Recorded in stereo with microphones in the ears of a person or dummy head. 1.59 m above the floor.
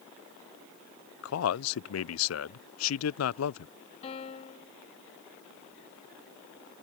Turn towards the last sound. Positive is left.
turn(degrees=40)  # may be behind; listen again after turning